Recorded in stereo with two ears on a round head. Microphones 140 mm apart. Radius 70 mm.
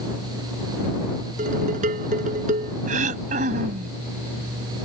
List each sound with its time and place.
1.4 s dishes clattering: 55° right (ahead or behind)
2.9 s throat clearing: 55° right (ahead or behind)